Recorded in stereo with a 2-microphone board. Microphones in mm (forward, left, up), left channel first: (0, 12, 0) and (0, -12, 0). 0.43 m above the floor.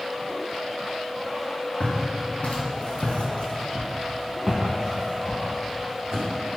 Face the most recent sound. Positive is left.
turn(degrees=-35)  # may be behind; listen again after turning